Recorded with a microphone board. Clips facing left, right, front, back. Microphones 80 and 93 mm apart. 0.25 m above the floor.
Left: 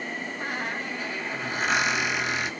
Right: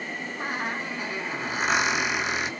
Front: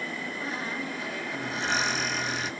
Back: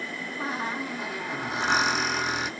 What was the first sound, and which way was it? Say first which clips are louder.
A squeak: right 2 dB, back 5 dB; 160° right.